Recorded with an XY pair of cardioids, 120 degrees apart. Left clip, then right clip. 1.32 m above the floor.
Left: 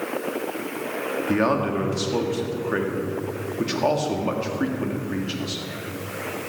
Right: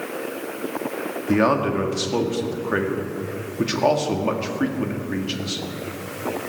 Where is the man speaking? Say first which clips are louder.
Right 3 dB; 15° right, 2 m.